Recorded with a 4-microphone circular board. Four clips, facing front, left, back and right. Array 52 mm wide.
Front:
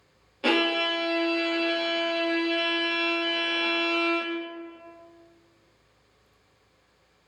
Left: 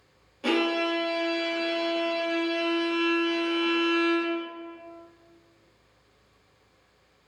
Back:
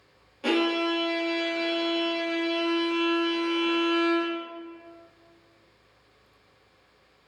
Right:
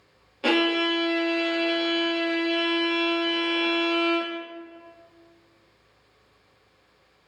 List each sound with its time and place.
0.4 s a violin: 45° right, 0.5 m